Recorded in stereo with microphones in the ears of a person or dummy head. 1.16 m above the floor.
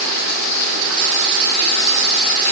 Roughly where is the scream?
I don't hear a scream.